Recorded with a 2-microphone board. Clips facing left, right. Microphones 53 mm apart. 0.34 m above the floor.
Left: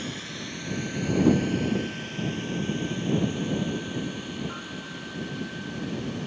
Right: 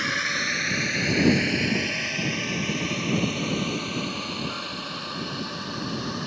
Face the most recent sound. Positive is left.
turn(degrees=-75)  # may be behind; listen again after turning